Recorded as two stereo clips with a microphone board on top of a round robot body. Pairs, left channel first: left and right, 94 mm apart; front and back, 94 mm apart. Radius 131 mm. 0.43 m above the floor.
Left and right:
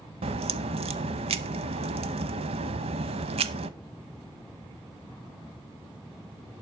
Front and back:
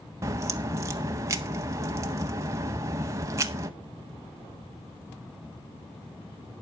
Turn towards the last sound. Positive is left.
turn(degrees=-115)